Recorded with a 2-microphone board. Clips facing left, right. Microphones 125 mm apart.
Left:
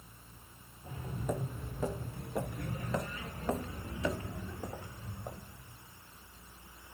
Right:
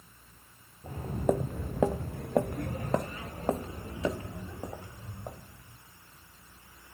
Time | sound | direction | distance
0.8 | footsteps | 50° right (ahead or behind) | 1.3 m